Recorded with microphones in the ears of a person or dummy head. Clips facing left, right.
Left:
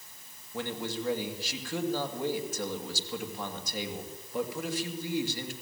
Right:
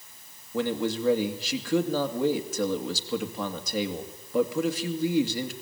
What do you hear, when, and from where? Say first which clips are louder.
0.5 s a man speaking: right 8 dB; 65° right (ahead or behind), 2.5 m